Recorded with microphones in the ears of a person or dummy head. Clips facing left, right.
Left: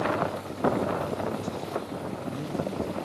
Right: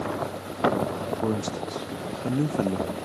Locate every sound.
1.2 s a man speaking: 75° right (ahead or behind), 1.1 m